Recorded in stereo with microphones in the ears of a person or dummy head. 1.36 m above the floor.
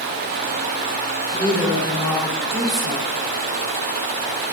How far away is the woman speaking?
About 3.5 m.